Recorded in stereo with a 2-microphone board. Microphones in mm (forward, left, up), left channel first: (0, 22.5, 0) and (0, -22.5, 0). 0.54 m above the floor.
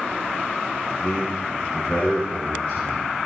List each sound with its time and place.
1.0 s a man speaking: 15° left (ahead or behind), 4.5 m; by 3.1 s 40° left (ahead or behind), 5.5 m